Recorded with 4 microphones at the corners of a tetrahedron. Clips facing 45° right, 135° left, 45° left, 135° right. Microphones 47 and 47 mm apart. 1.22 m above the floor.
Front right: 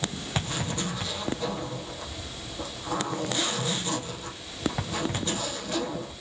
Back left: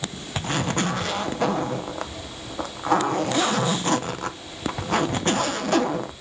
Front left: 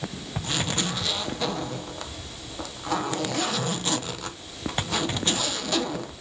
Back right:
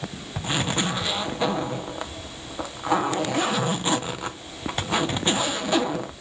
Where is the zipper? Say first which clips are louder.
Back left 7 dB, back right 3 dB; 155° left, 0.6 m.